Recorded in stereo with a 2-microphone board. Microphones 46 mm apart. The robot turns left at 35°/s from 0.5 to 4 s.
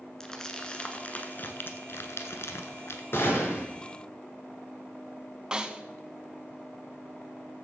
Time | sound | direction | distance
0.2 | crumpling | 15° left (ahead or behind) | 1.0 m
3.1 | a gunshot | 60° left (ahead or behind) | 2.5 m
5.5 | a snare drum | 20° right (ahead or behind) | 0.7 m